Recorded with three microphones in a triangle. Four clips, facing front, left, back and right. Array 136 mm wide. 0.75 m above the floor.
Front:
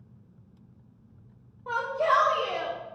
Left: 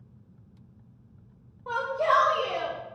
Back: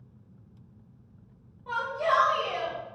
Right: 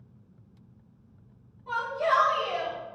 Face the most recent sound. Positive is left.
turn(degrees=65)